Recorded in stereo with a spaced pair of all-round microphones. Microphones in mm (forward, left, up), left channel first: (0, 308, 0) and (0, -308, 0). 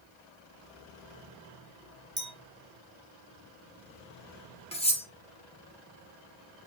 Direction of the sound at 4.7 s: 10° left (ahead or behind).